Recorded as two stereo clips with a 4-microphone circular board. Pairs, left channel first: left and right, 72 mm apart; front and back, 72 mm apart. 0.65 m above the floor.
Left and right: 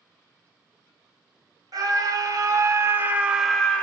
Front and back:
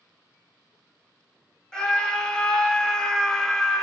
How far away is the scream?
About 1.1 m.